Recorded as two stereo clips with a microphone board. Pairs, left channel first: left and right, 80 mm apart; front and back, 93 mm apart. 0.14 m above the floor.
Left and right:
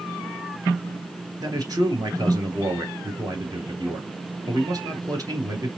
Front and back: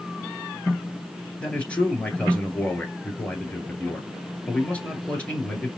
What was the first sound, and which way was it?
A man speaking, 75° right.